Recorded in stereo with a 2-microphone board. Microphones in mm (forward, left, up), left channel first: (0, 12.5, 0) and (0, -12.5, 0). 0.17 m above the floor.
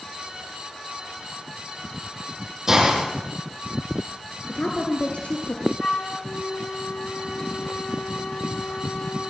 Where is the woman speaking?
60° left (ahead or behind), 2.5 m.